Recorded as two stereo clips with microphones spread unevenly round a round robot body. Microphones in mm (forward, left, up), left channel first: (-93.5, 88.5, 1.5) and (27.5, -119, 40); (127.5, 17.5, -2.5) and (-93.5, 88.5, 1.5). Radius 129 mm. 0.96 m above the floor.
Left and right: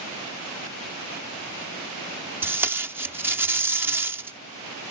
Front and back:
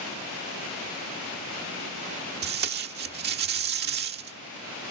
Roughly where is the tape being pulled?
Behind right.